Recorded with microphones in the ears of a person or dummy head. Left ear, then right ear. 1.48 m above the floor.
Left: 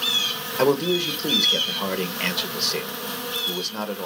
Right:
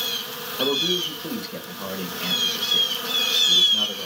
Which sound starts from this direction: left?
A man speaking, at 0.6 s.